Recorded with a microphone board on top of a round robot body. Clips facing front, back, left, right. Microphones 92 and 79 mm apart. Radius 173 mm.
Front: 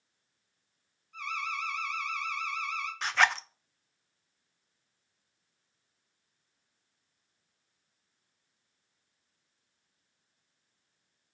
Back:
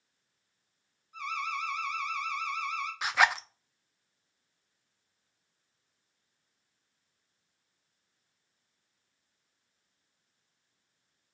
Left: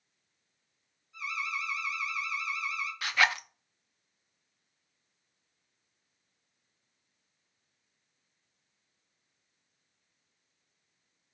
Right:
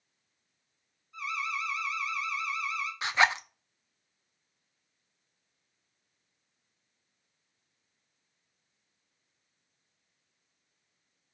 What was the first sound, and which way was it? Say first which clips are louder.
An alarm: back 1 dB, right 2 dB; 105° right.